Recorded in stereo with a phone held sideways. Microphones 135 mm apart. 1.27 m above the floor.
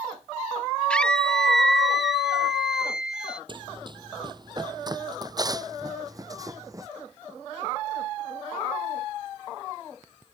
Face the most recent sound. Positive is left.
turn(degrees=-25)  # may be behind; listen again after turning